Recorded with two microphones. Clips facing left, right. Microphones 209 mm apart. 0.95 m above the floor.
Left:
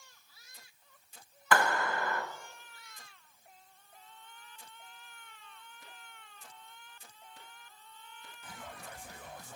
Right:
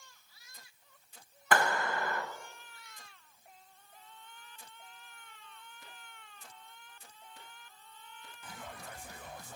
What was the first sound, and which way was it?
A clap, 50° right (ahead or behind).